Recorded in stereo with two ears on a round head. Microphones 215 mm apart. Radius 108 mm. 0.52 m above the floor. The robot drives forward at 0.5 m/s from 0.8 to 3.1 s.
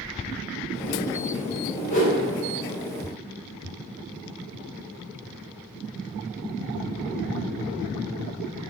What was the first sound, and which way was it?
A whoosh, 30° left (ahead or behind).